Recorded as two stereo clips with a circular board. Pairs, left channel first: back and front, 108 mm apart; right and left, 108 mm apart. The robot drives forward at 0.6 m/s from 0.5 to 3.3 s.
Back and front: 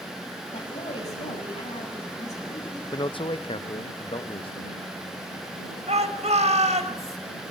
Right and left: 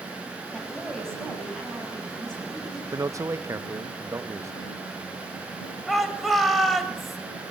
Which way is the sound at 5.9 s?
Straight ahead.